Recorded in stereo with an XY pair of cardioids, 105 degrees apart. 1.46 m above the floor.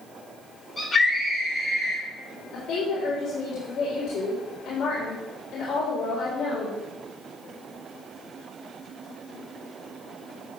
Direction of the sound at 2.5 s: 65° left.